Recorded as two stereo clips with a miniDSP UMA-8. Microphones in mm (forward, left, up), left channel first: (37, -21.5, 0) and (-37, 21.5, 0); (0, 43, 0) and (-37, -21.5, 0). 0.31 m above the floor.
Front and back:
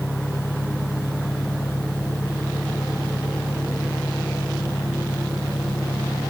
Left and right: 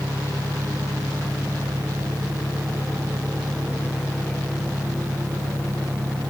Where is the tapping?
No tapping in this recording.